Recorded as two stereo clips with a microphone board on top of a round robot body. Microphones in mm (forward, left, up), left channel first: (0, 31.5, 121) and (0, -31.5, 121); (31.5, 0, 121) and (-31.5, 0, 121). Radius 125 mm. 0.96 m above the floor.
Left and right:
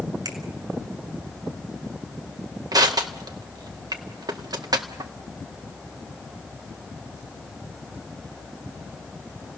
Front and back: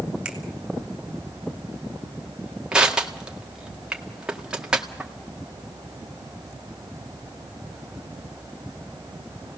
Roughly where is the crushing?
Right.